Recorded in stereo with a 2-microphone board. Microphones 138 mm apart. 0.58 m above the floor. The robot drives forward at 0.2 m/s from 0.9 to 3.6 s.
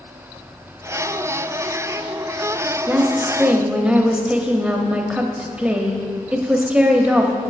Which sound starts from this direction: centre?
A woman speaking, at 2.9 s.